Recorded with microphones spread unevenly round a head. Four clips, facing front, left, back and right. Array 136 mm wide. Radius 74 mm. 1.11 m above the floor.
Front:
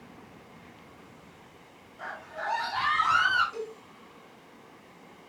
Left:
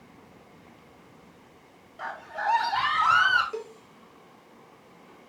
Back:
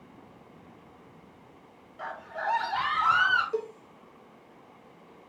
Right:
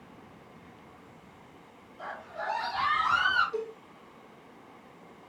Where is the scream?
100° left, 3 m; by 3.4 s 115° left, 4 m.